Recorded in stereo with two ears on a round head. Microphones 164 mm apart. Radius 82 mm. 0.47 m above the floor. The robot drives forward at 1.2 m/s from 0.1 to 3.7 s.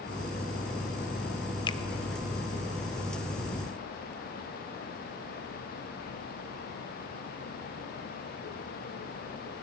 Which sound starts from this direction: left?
A finger snap, at 1.7 s.